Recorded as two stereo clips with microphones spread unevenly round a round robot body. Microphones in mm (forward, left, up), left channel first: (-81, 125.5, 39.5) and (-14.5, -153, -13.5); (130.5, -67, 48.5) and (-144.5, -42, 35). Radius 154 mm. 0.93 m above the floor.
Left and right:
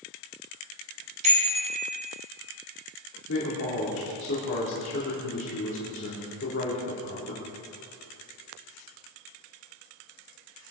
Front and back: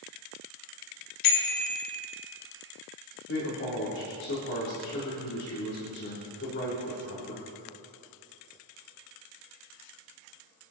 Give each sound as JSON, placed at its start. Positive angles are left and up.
{"t": 1.2, "sound": "a bicycle bell", "azimuth_deg": -10, "distance_m": 3.0}
{"t": 3.3, "sound": "a man speaking", "azimuth_deg": 50, "distance_m": 3.0}